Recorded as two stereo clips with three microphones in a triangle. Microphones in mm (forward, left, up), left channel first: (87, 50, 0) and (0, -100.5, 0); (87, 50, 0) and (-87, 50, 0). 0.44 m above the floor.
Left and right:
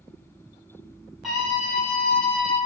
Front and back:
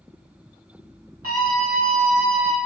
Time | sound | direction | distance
1.2 | a scream | 150° left | 3 m